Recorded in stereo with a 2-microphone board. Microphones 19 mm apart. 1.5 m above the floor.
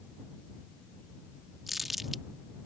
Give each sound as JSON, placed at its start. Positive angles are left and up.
{"t": 1.7, "sound": "crumpling", "side_deg": -15}